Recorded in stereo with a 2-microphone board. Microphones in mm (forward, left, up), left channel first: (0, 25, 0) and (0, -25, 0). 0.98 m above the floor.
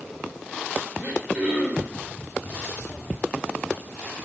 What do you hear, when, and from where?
1.0 s throat clearing: 25° right (ahead or behind), 4 m